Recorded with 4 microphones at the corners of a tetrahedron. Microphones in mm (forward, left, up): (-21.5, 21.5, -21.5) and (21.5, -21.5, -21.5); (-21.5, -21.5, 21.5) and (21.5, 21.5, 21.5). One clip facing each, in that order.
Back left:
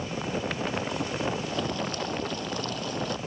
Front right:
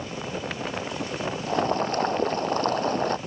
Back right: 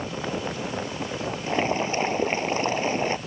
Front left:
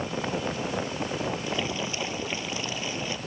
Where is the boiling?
90° right.